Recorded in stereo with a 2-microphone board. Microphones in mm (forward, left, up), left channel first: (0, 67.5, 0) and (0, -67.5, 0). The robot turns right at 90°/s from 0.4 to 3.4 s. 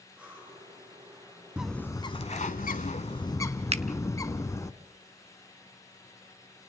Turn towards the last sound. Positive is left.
turn(degrees=-50)  # may be behind; listen again after turning